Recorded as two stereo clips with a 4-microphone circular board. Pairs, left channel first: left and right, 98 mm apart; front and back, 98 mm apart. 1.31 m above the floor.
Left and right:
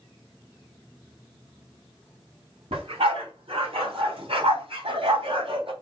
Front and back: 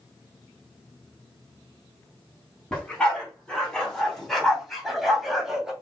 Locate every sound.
2.7 s a dog barking: 80° right, 3.5 m; by 5.7 s 95° right, 2 m